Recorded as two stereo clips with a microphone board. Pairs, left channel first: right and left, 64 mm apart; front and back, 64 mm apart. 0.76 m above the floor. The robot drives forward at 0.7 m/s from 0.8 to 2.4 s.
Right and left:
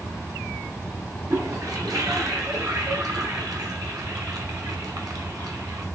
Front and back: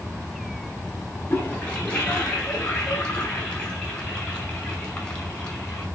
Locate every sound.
1.3 s a toilet flushing: 65° left, 5 m; by 5.9 s 70° left, 4.5 m